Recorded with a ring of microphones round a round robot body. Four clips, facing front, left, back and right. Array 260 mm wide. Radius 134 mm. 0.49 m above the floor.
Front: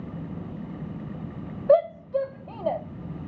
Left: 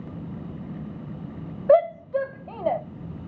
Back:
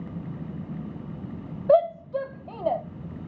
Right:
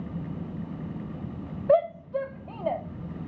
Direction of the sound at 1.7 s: 110° left.